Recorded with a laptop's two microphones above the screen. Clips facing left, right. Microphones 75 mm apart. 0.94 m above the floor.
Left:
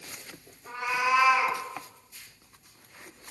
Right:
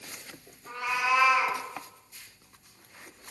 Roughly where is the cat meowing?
Centre.